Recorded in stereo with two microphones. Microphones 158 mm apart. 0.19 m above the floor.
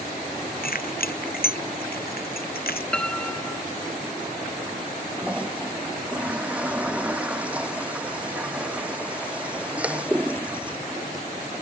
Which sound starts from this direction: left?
Keys jangling, at 0.6 s.